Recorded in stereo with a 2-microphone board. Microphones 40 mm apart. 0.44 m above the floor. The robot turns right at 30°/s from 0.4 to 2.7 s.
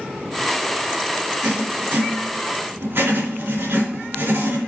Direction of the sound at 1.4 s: 145° right.